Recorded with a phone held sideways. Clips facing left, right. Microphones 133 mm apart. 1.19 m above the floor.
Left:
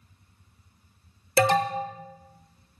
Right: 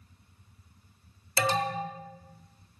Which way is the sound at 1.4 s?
60° left (ahead or behind).